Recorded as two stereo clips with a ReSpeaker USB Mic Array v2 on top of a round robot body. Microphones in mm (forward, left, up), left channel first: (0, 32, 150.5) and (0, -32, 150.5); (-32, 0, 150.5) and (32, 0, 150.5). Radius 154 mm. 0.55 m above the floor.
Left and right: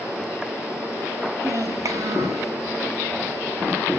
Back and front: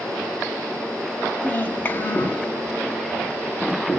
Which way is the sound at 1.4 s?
120° right.